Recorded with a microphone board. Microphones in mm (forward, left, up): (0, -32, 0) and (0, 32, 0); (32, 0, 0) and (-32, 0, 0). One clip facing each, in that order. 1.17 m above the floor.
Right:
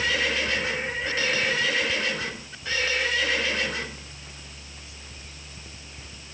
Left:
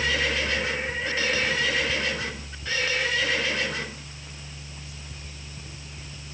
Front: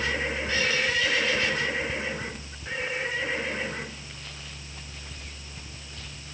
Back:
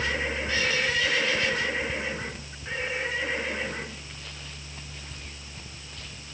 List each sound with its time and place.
Only background noise.